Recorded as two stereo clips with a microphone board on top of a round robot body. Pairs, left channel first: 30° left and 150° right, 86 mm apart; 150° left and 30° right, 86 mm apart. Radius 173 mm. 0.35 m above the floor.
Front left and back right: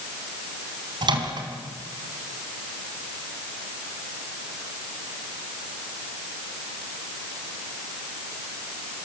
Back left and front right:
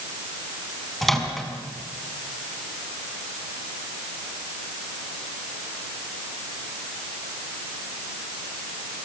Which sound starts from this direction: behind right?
A microwave, at 1.0 s.